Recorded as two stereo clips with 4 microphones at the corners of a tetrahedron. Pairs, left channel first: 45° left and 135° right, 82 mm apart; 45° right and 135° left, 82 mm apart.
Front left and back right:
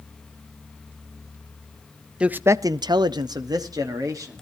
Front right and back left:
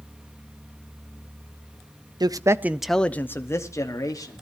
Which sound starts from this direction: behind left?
A man speaking, at 2.2 s.